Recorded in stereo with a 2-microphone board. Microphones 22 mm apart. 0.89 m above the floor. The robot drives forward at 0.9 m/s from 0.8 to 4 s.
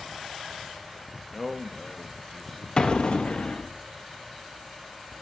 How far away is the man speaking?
About 0.6 m.